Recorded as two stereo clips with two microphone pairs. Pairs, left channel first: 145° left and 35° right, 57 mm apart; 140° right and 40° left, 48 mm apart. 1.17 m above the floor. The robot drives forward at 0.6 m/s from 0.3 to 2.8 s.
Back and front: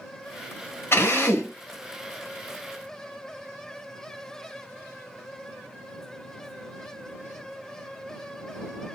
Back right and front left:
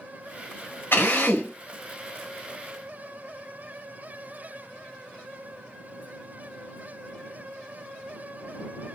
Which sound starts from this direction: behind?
A drill, at 0.9 s.